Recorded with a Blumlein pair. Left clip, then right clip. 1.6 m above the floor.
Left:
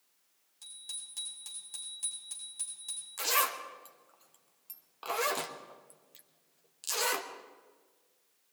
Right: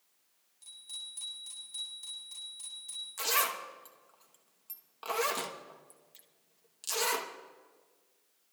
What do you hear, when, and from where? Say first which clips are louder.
0.6 s a bicycle bell: right 1 dB; 45° left, 7.5 m; by 3.1 s 60° left, 8 m
3.2 s a zipper: left 1 dB; straight ahead, 1.1 m